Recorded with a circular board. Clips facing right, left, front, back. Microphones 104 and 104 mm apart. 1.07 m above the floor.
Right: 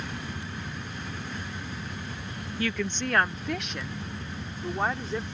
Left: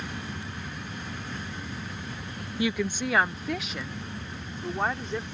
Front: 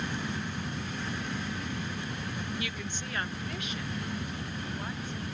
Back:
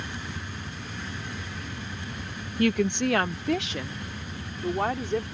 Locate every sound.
2.6 s a woman speaking: 160° left; by 5.2 s straight behind